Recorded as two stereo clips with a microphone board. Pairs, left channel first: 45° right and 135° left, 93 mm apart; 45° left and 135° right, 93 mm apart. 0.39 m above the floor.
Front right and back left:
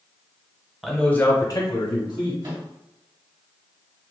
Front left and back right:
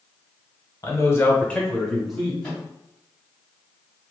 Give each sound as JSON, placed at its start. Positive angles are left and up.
{"t": 0.8, "sound": "a man speaking", "azimuth_deg": 50, "distance_m": 1.0}
{"t": 2.4, "sound": "a microwave", "azimuth_deg": 120, "distance_m": 2.0}